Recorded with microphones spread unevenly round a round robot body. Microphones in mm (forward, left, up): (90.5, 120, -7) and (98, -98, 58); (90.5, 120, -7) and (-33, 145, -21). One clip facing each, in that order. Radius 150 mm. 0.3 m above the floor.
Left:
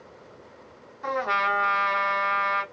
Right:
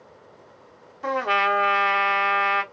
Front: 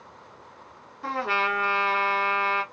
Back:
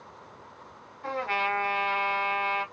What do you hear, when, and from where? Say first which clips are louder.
1.0 s a trumpet: right 4 dB, front 2 dB; 30° right, 2.0 m